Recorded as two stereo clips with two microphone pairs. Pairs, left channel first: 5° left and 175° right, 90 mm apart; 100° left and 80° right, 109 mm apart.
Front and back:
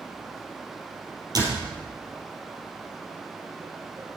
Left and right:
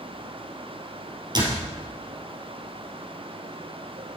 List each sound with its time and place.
1.4 s a door slam: 130° right, 3 m